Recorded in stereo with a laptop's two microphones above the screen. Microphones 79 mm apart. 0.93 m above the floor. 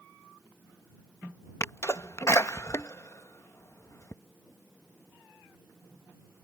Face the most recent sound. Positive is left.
turn(degrees=40)  # may be behind; listen again after turning